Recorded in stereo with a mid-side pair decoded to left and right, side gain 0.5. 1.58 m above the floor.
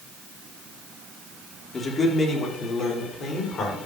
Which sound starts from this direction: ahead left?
A man speaking, at 1.7 s.